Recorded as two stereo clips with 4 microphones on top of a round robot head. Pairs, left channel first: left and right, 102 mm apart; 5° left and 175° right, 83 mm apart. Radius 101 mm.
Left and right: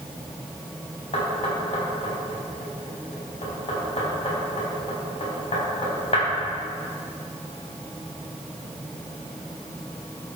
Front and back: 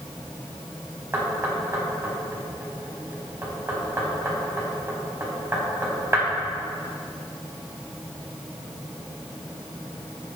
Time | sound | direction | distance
1.1 | knocking | 125° left | 3.5 m